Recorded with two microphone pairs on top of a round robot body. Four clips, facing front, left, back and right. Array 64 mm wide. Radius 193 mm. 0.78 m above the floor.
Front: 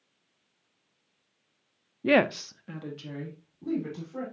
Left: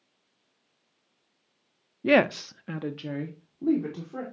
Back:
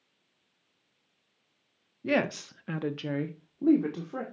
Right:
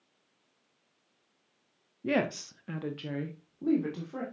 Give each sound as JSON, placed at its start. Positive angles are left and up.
{"t": 2.0, "sound": "a woman speaking", "azimuth_deg": 50, "distance_m": 0.8}